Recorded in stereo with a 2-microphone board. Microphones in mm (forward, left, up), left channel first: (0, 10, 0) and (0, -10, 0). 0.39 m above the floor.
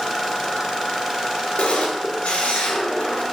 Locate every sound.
1.6 s a camera shutter: 70° left (ahead or behind), 5 m